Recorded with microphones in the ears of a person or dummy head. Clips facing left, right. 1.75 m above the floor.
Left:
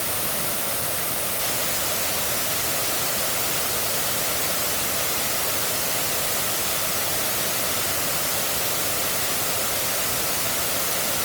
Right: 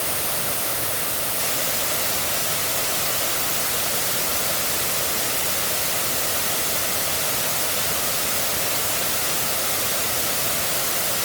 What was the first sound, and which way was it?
Only background noise.